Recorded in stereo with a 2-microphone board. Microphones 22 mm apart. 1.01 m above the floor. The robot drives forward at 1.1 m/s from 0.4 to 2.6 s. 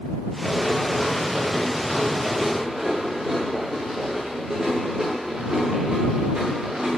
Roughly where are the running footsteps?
Centre.